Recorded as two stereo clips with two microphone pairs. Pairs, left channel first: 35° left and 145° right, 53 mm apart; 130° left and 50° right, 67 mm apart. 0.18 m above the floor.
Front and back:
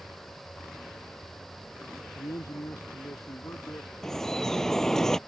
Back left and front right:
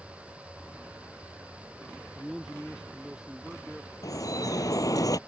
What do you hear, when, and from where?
2.1 s a man speaking: 35° left; by 3.9 s 30° left
4.0 s dripping: 115° left